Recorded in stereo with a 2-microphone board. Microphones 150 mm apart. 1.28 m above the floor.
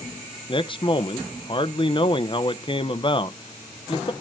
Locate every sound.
0.5 s a man speaking: 35° left (ahead or behind), 0.7 m